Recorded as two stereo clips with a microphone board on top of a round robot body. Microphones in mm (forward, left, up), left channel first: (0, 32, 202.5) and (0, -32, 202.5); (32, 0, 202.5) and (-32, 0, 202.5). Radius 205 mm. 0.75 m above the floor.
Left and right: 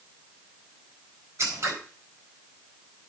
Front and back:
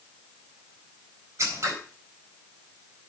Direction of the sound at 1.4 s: 135° right.